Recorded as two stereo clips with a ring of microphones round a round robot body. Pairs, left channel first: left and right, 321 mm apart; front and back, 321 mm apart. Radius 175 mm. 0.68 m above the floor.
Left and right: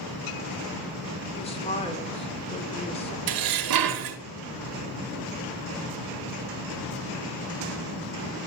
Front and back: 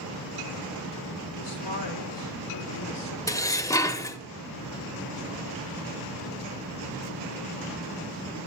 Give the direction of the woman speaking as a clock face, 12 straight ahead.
11 o'clock.